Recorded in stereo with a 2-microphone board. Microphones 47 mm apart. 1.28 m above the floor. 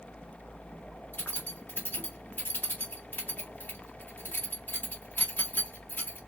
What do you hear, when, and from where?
1.1 s keys jangling: 45° left (ahead or behind), 1.9 m